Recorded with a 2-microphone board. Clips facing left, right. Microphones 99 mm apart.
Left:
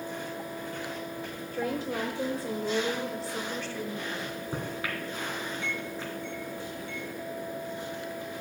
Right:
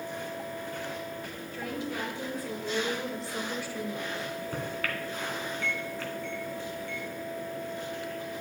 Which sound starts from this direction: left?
A woman speaking, at 1.5 s.